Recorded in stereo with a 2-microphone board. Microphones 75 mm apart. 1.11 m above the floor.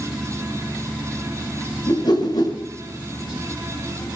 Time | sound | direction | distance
1.9 | a whoosh | 70° left (ahead or behind) | 6 m